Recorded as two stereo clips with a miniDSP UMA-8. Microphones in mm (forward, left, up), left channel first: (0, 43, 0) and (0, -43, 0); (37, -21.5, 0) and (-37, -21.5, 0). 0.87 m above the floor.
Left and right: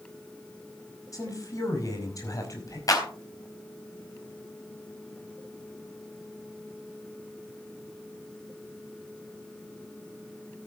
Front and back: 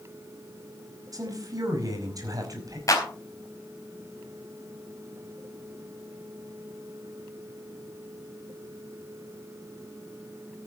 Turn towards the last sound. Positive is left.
turn(degrees=45)